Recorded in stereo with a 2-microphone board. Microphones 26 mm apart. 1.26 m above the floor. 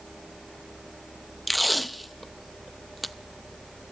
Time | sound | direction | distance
1.5 | tape being pulled | centre (ahead or behind) | 0.5 m